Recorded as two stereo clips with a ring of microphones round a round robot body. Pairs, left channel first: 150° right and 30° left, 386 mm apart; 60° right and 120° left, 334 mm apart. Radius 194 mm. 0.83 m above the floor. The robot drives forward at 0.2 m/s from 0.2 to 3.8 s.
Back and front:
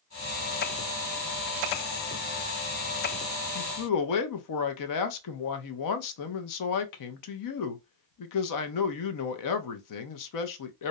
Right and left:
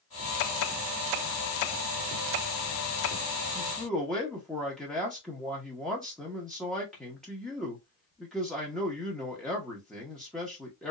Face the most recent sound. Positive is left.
turn(degrees=-150)